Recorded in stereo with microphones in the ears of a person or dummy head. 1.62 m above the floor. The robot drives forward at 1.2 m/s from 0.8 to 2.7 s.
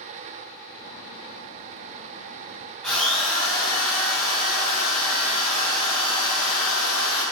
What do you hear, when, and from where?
2.8 s a drill: 5° left (ahead or behind), 1.7 m